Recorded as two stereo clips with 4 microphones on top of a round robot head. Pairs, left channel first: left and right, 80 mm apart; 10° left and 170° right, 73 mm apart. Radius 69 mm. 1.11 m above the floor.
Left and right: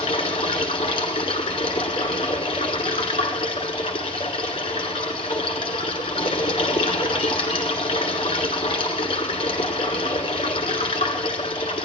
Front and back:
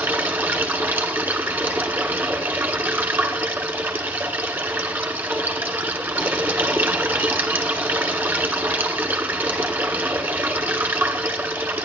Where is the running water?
130° left, 1.4 m.